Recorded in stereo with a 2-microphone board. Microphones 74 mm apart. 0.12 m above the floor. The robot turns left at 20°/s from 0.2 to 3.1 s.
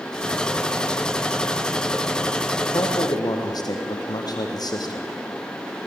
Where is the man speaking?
70° left (ahead or behind), 5 m; by 5.1 s 65° left (ahead or behind), 5 m.